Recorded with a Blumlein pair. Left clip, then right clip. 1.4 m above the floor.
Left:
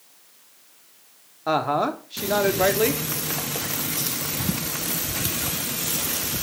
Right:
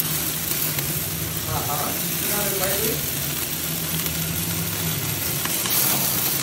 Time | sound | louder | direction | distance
1.5 | a woman speaking | left 6 dB | 35° left | 1.5 m